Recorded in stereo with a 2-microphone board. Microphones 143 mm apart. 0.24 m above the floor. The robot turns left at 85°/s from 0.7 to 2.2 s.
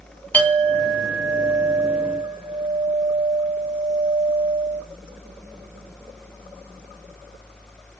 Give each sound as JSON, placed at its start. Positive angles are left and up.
{"t": 0.3, "sound": "a clink", "azimuth_deg": 25, "distance_m": 0.9}